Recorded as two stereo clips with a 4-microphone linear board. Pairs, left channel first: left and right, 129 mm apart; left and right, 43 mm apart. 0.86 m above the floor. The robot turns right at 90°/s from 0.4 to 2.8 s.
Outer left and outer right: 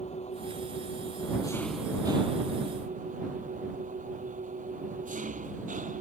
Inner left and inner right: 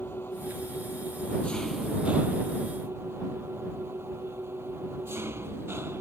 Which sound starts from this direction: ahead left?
An engine running, at 0.0 s.